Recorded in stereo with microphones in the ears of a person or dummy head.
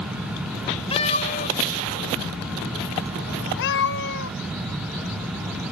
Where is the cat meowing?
30° left (ahead or behind); by 4.3 s 55° left (ahead or behind).